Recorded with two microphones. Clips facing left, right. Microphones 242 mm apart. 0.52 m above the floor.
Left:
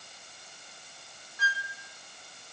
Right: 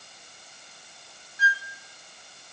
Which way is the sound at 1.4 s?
65° left (ahead or behind).